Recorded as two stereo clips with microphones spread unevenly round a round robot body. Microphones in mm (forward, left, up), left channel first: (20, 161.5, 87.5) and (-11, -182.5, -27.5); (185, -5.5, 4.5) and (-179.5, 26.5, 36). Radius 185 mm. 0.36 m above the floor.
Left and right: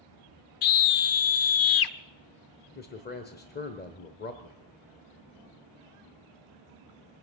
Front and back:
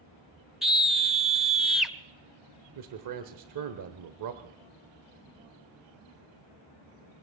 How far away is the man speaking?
About 1.2 m.